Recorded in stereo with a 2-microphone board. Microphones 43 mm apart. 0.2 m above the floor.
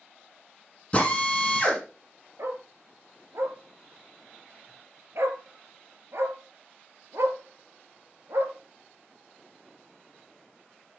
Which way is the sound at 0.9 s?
25° left (ahead or behind).